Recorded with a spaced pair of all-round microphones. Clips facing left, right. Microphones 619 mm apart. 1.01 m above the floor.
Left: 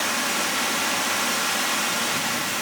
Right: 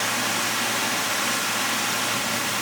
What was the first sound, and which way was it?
Only background noise.